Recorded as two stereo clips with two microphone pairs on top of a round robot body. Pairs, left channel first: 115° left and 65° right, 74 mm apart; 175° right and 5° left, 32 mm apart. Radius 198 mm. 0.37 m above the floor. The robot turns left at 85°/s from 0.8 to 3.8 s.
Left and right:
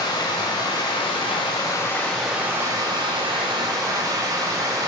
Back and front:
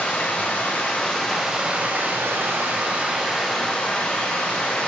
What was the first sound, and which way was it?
Running water, 145° left.